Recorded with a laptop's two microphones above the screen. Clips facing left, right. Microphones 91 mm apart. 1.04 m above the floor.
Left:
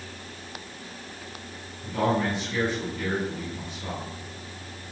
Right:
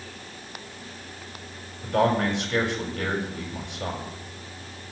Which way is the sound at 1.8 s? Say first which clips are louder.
Right 3 dB; 65° right (ahead or behind).